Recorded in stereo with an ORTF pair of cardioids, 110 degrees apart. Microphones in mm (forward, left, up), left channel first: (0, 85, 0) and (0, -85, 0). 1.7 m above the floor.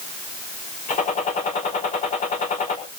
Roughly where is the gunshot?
Ahead left.